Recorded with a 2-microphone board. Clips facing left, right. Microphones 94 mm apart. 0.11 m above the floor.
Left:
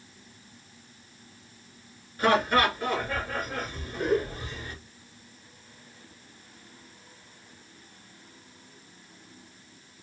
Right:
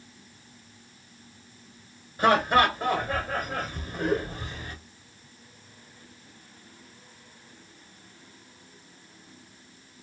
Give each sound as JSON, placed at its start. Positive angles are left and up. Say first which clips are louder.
{"t": 2.2, "sound": "laughter", "louder": "right 2 dB", "side_deg": -25, "distance_m": 1.4}